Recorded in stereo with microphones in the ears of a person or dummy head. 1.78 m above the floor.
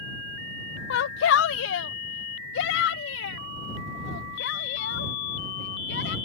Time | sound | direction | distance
0.9 | a shout | 65° left (ahead or behind) | ?